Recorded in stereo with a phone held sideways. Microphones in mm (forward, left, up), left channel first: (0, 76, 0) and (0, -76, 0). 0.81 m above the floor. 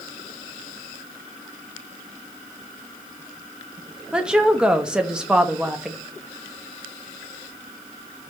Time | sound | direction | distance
4.1 | a woman speaking | 5° right (ahead or behind) | 0.5 m